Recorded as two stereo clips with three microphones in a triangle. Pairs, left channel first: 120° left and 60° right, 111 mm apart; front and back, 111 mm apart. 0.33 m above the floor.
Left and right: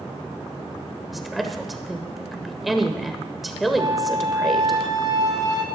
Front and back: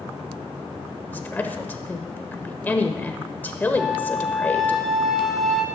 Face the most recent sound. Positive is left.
turn(degrees=-90)